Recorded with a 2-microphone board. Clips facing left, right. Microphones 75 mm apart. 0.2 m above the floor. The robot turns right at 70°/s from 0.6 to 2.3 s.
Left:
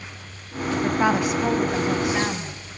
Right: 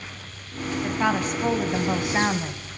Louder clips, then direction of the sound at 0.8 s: Left 3 dB; 20° left (ahead or behind).